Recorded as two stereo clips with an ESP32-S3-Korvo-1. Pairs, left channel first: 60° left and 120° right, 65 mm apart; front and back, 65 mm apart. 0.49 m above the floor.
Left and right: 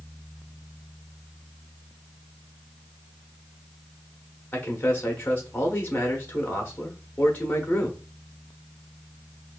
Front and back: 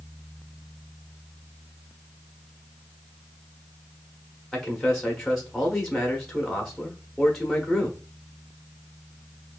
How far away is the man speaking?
About 0.9 m.